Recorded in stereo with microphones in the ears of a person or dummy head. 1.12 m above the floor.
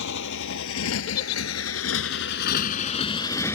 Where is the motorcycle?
70° left (ahead or behind); by 3.5 s 15° left (ahead or behind).